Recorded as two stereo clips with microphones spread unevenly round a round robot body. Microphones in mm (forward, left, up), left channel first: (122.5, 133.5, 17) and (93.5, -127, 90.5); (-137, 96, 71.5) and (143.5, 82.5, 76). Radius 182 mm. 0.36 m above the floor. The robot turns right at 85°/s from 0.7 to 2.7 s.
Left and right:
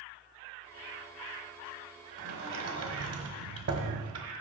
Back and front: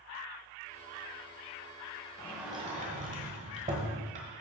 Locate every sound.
2.2 s a sliding door: 110° right, 1.2 m; by 4.3 s 65° right, 1.2 m